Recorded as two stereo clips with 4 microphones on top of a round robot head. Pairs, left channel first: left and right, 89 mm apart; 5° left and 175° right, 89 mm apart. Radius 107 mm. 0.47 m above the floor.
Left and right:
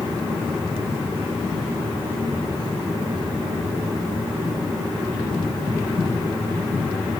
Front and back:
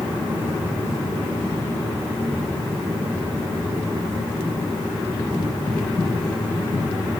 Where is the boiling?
No boiling in this recording.